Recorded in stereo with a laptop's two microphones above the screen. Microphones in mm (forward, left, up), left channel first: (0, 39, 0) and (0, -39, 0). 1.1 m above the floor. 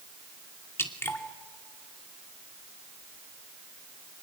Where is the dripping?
35° left (ahead or behind), 2.5 m.